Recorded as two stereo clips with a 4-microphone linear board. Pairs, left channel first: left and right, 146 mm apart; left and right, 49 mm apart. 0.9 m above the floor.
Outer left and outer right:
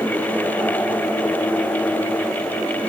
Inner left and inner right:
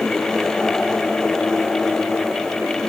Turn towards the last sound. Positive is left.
No sound to turn to.